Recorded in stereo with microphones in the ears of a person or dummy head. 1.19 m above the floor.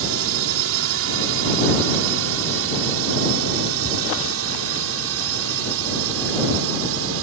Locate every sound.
0.0 s a drone: 65° right (ahead or behind); by 7.2 s 70° right (ahead or behind)